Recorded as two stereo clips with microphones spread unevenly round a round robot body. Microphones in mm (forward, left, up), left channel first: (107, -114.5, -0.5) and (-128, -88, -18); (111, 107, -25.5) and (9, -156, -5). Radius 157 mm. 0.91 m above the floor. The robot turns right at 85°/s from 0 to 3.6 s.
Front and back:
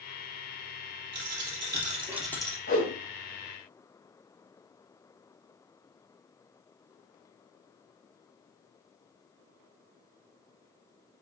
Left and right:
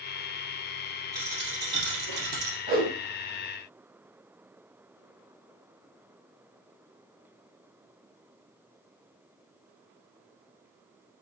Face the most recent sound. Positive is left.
turn(degrees=30)